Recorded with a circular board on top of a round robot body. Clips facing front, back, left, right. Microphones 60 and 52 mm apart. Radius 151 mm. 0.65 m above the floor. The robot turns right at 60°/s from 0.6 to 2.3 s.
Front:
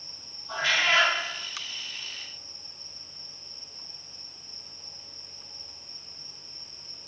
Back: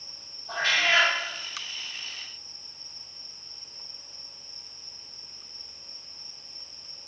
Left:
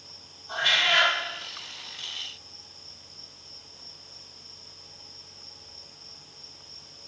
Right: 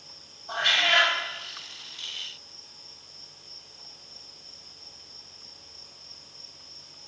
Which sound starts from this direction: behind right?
A cat meowing, at 0.5 s.